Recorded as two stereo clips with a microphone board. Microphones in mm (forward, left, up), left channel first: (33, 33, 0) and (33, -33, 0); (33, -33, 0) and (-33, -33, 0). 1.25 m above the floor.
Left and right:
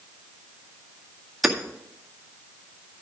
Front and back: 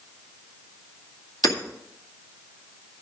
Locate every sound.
1.4 s hammering: 5° right, 1.9 m